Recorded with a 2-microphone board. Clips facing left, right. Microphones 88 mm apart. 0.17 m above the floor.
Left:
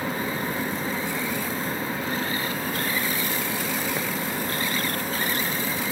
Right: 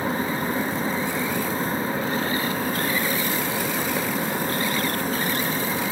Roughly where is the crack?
No crack in this recording.